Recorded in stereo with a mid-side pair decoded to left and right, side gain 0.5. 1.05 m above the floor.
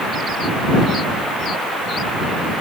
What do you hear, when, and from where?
Only background noise.